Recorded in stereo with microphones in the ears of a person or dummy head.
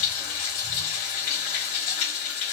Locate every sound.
0.0 s running water: 50° left (ahead or behind), 2 m